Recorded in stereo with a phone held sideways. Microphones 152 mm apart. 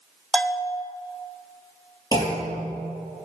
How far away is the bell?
About 0.6 m.